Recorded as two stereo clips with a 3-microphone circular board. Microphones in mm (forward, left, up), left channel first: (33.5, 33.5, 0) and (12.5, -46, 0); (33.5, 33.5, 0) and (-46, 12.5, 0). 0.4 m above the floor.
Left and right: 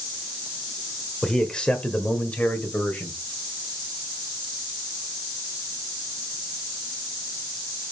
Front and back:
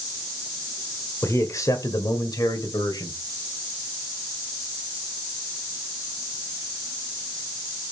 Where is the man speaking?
Straight ahead, 1.5 m; by 3.2 s 10° left, 2 m.